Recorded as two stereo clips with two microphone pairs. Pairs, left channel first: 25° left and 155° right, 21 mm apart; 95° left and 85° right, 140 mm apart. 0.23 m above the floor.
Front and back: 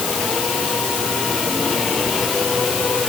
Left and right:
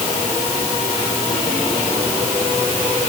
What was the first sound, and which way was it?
Only background noise.